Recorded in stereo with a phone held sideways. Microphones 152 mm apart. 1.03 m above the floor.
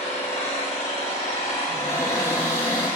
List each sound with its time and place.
0.0 s an engine running: 45° left (ahead or behind), 0.9 m
1.7 s a cupboard door: 15° left (ahead or behind), 1.0 m